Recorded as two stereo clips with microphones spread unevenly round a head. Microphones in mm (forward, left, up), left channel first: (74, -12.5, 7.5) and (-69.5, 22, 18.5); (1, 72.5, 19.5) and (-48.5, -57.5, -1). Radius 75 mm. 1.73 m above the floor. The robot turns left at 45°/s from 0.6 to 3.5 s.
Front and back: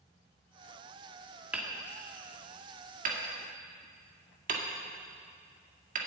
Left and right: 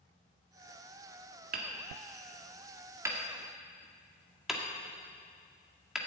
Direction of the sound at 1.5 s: 115° right.